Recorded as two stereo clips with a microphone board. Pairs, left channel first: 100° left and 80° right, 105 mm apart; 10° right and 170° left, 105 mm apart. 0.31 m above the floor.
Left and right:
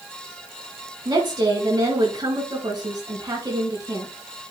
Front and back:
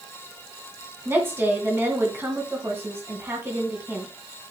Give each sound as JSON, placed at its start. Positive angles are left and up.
{"t": 1.1, "sound": "a woman speaking", "azimuth_deg": -125, "distance_m": 3.0}